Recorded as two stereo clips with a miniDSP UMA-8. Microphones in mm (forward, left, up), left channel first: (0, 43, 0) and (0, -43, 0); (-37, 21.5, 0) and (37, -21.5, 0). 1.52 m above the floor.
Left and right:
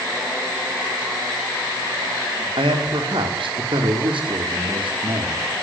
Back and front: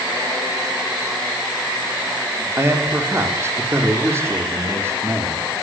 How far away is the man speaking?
About 5.5 m.